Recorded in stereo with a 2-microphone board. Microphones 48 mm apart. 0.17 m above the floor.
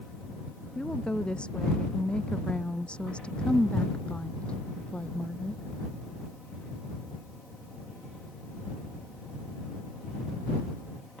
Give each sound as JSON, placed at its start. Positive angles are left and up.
{"t": 0.8, "sound": "a woman speaking", "side_deg": 20}